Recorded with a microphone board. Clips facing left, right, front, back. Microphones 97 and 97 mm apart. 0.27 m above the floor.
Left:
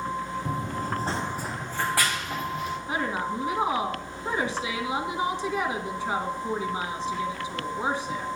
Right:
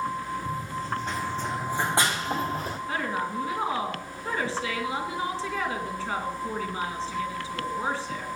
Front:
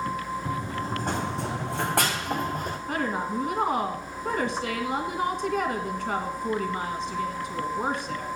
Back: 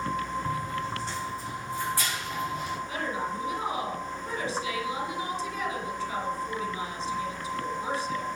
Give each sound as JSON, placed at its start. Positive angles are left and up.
{"t": 0.5, "sound": "running footsteps", "azimuth_deg": 70, "distance_m": 1.6}
{"t": 2.9, "sound": "a woman speaking", "azimuth_deg": 20, "distance_m": 2.5}